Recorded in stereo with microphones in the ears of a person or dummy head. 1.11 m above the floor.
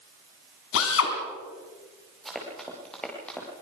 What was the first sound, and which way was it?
A drill, 80° left.